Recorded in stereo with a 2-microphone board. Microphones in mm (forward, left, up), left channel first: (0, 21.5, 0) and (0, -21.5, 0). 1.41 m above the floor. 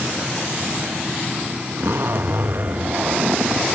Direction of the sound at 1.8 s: 65° right (ahead or behind).